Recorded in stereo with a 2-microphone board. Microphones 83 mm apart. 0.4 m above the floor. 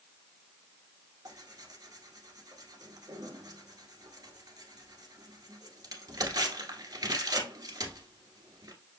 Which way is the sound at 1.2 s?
50° right (ahead or behind).